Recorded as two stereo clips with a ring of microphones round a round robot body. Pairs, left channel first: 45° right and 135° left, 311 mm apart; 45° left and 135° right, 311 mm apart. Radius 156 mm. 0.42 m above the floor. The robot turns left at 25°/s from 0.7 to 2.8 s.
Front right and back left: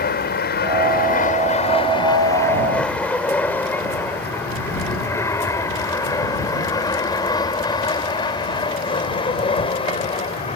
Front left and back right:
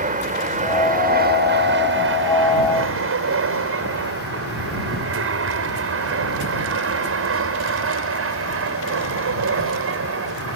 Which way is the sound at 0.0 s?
85° right.